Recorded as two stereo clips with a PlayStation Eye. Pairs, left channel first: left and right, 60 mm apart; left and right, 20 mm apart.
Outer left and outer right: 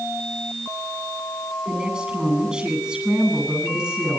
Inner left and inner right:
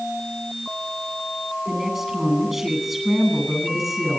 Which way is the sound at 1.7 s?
15° right (ahead or behind).